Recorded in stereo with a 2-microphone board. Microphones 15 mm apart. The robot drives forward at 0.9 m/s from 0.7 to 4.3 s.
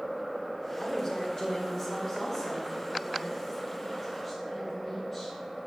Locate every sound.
0.8 s a woman speaking: 45° left (ahead or behind), 1.9 m; by 5.3 s 20° left (ahead or behind), 4.5 m